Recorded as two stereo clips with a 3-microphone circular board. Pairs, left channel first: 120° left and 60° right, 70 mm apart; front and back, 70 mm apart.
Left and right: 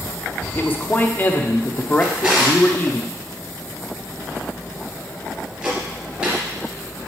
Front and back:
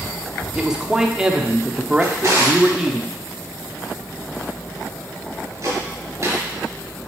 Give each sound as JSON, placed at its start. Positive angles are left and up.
{"t": 0.6, "sound": "a man speaking", "azimuth_deg": 110, "distance_m": 0.7}
{"t": 2.0, "sound": "a drawer", "azimuth_deg": -135, "distance_m": 2.5}